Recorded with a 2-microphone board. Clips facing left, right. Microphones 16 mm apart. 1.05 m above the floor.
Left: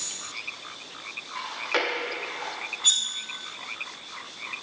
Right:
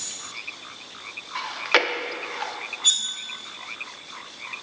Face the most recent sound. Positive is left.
turn(degrees=-5)  # may be behind; listen again after turning